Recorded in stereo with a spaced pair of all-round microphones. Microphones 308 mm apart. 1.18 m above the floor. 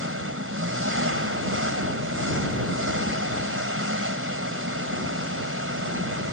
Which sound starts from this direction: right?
An engine running, at 0.0 s.